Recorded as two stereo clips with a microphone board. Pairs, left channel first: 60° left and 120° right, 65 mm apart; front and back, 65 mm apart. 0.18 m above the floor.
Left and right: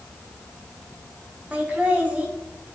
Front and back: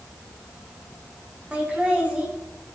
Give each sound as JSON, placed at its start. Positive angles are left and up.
{"t": 1.5, "sound": "laughter", "azimuth_deg": -140, "distance_m": 1.7}